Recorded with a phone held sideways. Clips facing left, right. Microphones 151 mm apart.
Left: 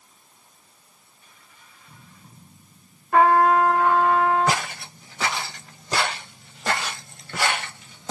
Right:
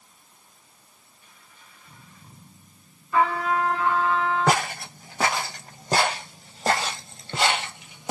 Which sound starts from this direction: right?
Footsteps, at 4.5 s.